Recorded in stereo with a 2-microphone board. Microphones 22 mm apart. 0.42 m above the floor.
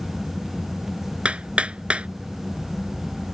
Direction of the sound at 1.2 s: 60° right (ahead or behind).